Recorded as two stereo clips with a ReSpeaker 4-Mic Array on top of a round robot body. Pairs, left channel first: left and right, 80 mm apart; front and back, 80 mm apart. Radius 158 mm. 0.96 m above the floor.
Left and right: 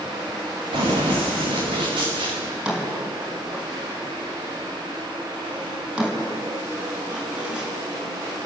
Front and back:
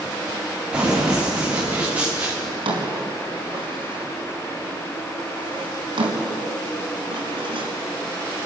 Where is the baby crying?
I don't hear a baby crying.